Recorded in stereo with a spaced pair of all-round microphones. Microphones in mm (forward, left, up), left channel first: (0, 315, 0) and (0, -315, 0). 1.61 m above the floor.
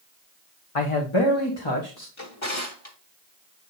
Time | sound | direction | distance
0.8 | a man speaking | 60° left (ahead or behind) | 1.1 m
2.2 | a drawer | 50° left (ahead or behind) | 1.9 m